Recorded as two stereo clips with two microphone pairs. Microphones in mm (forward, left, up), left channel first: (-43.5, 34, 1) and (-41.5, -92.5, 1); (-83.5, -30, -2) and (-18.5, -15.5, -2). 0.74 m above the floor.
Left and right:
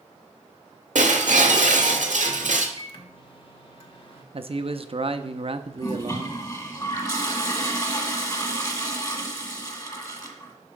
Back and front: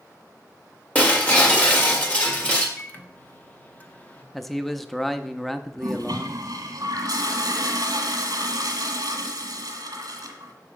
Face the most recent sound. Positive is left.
turn(degrees=30)